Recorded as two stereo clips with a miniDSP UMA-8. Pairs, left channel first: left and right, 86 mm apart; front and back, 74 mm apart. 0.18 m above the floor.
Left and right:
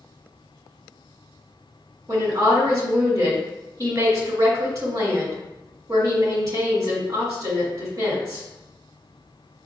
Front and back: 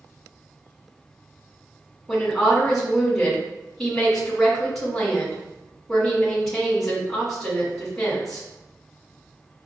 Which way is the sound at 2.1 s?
85° right.